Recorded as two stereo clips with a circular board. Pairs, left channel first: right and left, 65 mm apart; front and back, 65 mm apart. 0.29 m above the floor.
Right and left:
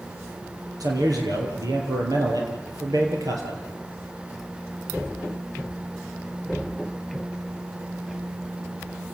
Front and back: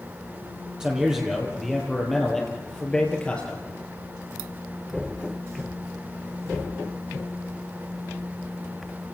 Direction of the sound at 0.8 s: 100° left.